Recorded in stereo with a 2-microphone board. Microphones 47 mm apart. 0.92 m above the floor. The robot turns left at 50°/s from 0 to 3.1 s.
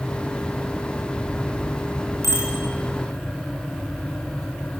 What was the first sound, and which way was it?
A bicycle bell, 85° right.